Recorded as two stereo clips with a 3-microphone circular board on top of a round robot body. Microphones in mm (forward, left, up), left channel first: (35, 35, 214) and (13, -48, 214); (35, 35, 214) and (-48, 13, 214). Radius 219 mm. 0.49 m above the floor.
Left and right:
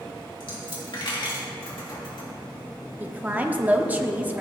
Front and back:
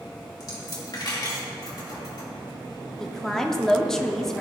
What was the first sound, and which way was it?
A dropped coin, 55° left.